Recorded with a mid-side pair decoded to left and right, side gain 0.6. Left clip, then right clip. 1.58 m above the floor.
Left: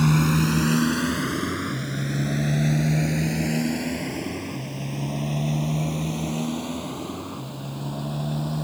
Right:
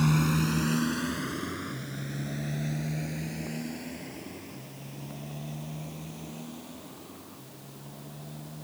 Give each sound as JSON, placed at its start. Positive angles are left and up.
{"t": 0.0, "sound": "a motorcycle", "azimuth_deg": 25}